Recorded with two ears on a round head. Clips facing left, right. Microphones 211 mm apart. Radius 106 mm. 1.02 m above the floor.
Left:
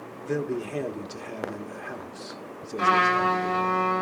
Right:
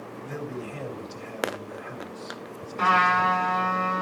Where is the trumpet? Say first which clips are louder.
Left 2 dB; 10° left (ahead or behind), 7.5 m.